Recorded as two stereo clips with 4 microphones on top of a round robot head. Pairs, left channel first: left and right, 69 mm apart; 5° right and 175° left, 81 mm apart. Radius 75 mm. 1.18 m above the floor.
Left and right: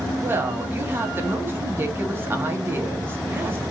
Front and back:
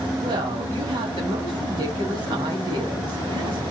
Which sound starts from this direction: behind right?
A woman speaking, at 0.2 s.